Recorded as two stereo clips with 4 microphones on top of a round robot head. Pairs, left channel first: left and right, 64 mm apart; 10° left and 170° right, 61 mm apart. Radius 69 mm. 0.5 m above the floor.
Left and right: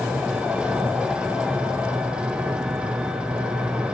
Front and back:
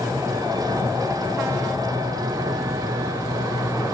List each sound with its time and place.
0.0 s an engine running: 165° right, 1.7 m